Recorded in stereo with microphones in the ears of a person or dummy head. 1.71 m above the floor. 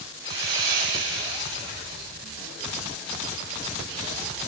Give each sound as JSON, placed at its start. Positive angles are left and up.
{"t": 0.2, "sound": "sawing", "side_deg": -75, "distance_m": 8.0}